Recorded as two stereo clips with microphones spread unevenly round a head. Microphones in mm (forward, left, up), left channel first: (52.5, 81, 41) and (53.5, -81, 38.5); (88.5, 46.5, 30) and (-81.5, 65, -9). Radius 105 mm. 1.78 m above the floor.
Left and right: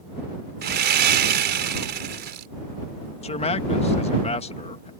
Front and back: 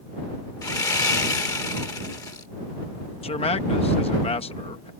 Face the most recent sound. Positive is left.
turn(degrees=40)